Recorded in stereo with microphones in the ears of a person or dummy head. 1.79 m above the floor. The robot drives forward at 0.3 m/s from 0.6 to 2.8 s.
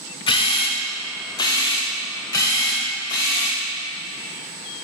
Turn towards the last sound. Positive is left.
turn(degrees=15)  # may be behind; listen again after turning